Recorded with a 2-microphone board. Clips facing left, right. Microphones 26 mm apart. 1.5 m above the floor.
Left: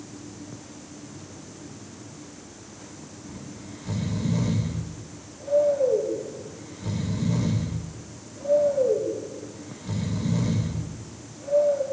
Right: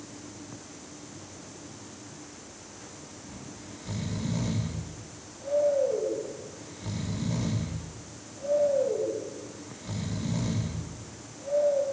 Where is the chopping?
I don't hear chopping.